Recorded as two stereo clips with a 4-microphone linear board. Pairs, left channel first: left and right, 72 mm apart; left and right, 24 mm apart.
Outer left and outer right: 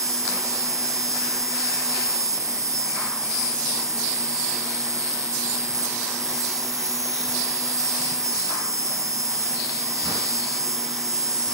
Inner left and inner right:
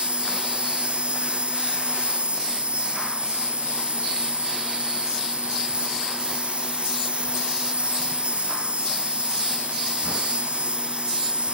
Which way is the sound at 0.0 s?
50° right (ahead or behind).